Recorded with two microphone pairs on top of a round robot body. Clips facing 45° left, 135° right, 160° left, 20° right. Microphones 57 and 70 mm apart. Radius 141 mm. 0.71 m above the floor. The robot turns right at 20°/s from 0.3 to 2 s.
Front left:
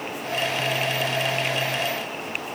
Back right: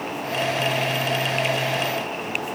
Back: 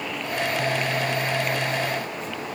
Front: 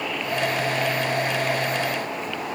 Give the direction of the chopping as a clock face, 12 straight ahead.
No chopping in this recording.